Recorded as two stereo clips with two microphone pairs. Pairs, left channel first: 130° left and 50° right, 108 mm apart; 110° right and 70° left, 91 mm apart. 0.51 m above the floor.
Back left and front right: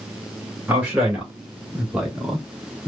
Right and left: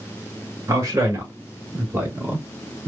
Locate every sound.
0.7 s a man speaking: 25° left, 1.5 m; by 2.9 s 60° left, 0.9 m